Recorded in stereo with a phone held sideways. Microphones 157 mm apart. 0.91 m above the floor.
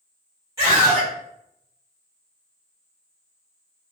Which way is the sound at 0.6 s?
20° right (ahead or behind).